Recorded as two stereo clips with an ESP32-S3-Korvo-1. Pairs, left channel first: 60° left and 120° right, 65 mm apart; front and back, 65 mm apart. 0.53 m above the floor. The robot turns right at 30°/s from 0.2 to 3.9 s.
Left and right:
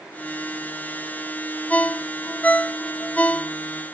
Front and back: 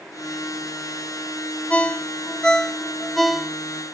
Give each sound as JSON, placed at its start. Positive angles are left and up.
{"t": 1.7, "sound": "a ringtone", "azimuth_deg": 35, "distance_m": 0.6}